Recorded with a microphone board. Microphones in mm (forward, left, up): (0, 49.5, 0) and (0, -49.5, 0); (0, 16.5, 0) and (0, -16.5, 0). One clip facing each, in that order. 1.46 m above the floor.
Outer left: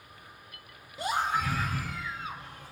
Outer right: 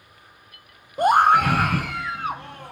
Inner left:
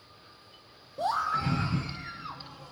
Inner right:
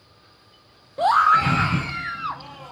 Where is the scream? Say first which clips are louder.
Outer right 13 dB, inner right 12 dB; 50° right (ahead or behind), 0.6 m; by 2.7 s 65° right (ahead or behind), 1.6 m.